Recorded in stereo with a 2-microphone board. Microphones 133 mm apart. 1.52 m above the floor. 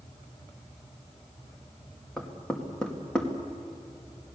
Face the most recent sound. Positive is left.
turn(degrees=5)  # may be behind; listen again after turning